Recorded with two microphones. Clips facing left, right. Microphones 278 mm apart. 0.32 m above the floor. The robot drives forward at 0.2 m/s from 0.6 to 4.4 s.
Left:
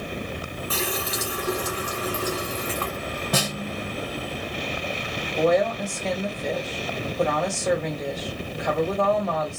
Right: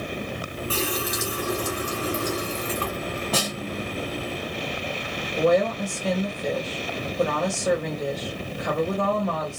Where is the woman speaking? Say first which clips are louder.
Even; 15° right (ahead or behind), 1.3 m.